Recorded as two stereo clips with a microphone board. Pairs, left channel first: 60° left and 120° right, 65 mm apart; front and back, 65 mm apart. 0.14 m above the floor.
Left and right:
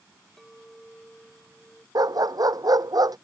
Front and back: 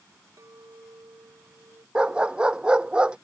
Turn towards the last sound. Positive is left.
turn(degrees=-105)